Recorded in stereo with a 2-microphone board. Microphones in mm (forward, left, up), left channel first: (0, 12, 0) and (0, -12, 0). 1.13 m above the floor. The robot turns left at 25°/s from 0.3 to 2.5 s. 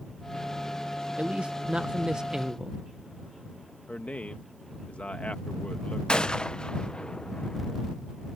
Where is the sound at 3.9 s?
80° left.